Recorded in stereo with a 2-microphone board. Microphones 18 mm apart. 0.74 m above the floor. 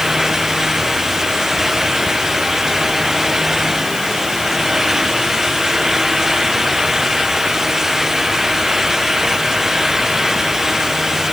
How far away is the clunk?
No clunk in this recording.